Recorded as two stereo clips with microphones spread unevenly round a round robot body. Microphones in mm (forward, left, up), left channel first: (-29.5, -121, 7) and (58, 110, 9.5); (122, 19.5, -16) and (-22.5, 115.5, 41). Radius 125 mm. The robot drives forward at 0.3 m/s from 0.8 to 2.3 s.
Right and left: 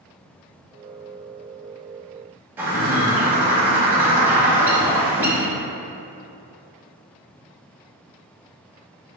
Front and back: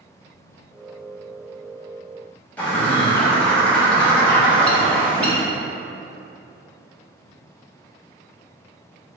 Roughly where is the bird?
Ahead.